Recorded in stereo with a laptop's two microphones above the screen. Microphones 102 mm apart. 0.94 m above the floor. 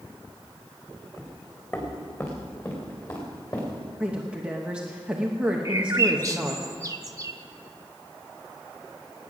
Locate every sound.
1.2 s footsteps: 20° left (ahead or behind), 3.5 m; by 3.9 s 35° left (ahead or behind), 6 m
4.0 s a woman speaking: 10° right (ahead or behind), 0.8 m
5.7 s a bird: 30° right (ahead or behind), 1.1 m